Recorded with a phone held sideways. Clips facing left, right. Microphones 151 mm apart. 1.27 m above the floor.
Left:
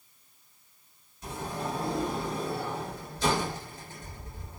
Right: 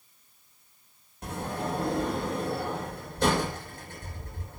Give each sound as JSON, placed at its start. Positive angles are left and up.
{"t": 1.2, "sound": "a sliding door", "side_deg": -60, "distance_m": 6.0}